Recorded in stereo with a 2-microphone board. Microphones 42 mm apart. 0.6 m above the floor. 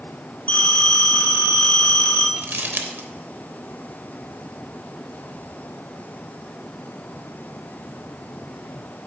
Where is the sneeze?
I don't hear a sneeze.